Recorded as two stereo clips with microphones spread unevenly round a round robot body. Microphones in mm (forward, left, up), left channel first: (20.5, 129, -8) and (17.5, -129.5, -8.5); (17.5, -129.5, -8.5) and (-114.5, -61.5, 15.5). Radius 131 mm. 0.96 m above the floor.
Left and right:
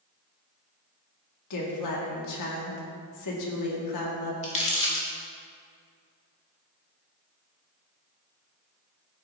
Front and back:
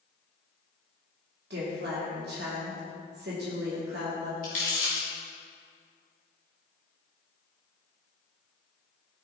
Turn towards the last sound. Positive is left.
turn(degrees=25)